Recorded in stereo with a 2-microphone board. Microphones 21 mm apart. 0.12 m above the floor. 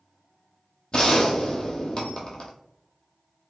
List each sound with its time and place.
0.9 s a gunshot: 45° left (ahead or behind), 0.9 m